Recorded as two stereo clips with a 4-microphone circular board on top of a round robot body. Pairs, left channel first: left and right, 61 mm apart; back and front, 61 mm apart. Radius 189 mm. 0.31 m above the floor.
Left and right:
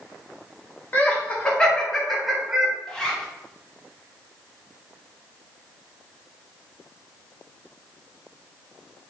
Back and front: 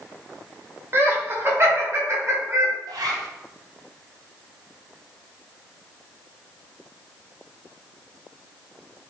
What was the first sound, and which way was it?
Laughter, 35° left.